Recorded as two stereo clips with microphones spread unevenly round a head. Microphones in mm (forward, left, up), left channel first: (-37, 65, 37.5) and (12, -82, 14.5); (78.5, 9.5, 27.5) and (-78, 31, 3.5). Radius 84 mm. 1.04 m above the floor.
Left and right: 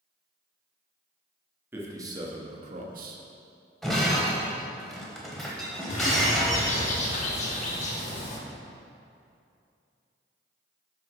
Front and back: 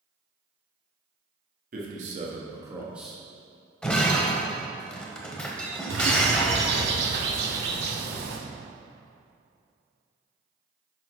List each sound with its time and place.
1.7 s a man speaking: 150° right, 1.5 m; by 3.2 s 90° right, 1.2 m
3.8 s breaking glass: 45° left, 0.9 m
5.9 s a bird: 150° left, 1.1 m